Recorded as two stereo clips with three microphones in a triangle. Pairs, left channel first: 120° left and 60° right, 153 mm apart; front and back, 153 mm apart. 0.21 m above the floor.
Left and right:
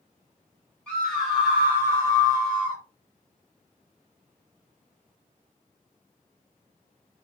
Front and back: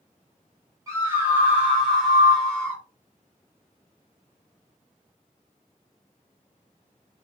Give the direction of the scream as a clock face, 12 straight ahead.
6 o'clock.